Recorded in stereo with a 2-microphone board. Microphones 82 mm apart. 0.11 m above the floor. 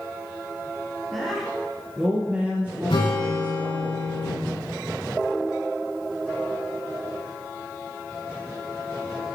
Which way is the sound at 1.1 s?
5° left (ahead or behind).